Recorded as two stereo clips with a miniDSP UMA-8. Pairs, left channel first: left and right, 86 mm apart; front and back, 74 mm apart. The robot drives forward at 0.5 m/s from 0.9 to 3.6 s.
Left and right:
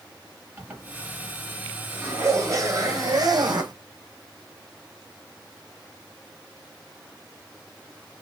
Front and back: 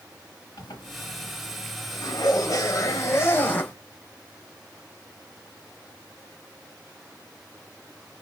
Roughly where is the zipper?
Ahead.